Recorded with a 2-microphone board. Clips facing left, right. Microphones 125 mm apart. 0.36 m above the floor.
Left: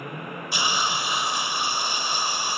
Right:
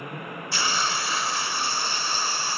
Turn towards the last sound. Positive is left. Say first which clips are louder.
# left 1 dB
turn(degrees=15)  # may be behind; listen again after turning